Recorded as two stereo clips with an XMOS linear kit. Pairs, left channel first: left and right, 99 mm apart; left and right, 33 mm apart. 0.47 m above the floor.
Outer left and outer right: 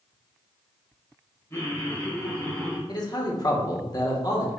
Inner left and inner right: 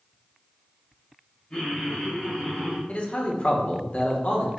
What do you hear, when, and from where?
1.5 s laughter: 25° left (ahead or behind), 1.6 m; by 2.8 s 10° left (ahead or behind), 0.9 m
2.9 s a man speaking: 40° left (ahead or behind), 0.9 m